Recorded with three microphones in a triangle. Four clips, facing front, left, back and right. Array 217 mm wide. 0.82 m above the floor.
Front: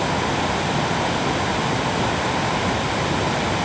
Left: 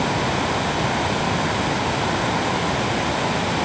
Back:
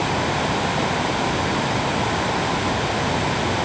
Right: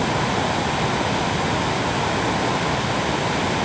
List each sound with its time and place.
Only background noise.